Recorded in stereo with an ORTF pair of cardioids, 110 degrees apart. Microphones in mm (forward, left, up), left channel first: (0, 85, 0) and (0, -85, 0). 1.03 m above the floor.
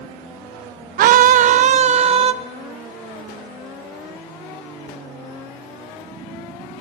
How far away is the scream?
About 0.6 m.